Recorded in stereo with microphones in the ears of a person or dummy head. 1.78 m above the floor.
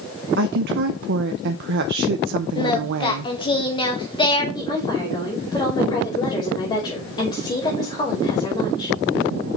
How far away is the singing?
About 1.1 m.